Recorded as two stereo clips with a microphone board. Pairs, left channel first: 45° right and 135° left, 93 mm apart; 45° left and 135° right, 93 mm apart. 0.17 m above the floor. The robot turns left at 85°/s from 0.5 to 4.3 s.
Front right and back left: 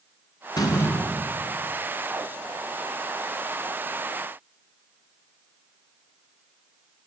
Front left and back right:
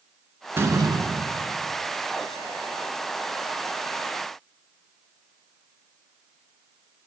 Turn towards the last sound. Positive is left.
turn(degrees=-35)